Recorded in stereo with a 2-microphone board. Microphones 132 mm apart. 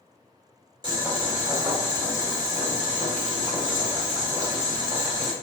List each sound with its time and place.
0.8 s boiling: 35° right (ahead or behind), 0.8 m